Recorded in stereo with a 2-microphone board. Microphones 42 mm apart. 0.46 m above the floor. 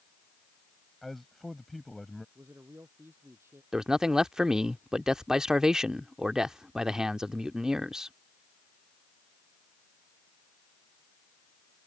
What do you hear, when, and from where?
1.0 s a man speaking: 5° left (ahead or behind)
2.4 s a man speaking: 75° right (ahead or behind)
3.7 s a man speaking: 15° right (ahead or behind)